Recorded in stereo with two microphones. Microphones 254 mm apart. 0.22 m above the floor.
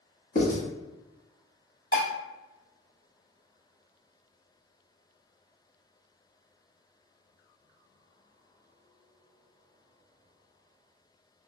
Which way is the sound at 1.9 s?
35° left (ahead or behind).